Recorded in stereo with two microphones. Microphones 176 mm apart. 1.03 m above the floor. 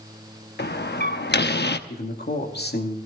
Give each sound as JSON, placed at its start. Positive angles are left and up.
{"t": 0.6, "sound": "a door slam", "side_deg": 75, "distance_m": 0.8}
{"t": 1.9, "sound": "a man speaking", "side_deg": 70, "distance_m": 2.5}